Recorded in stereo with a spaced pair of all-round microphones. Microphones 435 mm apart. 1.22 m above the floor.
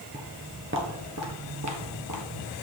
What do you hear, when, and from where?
0.1 s footsteps: 15° right (ahead or behind), 1.3 m; by 2.5 s 45° right (ahead or behind), 1.7 m